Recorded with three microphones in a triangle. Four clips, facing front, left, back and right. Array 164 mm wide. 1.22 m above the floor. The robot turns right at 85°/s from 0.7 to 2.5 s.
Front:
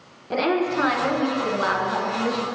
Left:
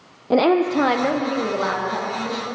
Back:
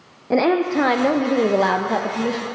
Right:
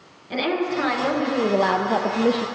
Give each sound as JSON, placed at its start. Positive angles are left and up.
{"t": 0.3, "sound": "a woman speaking", "azimuth_deg": 125, "distance_m": 0.5}